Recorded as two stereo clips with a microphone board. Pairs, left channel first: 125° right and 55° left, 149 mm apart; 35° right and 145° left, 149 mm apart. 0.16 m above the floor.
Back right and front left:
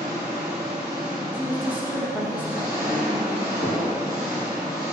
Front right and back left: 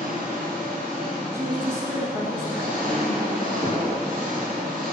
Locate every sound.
0.0 s an engine running: 120° left, 2.5 m
1.3 s a woman speaking: 110° left, 1.2 m
3.6 s knocking: 140° left, 2.5 m